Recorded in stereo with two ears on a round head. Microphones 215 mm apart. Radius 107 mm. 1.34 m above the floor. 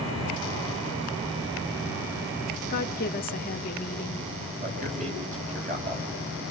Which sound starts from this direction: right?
A man speaking, at 4.6 s.